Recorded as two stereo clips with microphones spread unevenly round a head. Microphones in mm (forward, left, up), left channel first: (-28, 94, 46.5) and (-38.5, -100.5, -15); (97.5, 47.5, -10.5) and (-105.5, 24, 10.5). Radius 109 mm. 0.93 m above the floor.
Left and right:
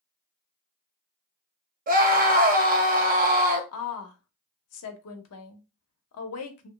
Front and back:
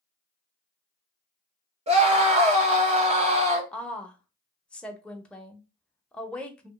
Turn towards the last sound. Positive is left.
turn(degrees=90)